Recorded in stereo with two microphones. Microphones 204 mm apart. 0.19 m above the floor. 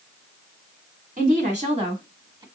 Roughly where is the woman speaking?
Right.